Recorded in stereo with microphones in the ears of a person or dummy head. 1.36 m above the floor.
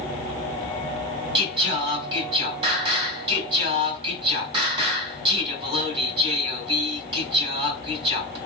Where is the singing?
25° right (ahead or behind), 1.6 m.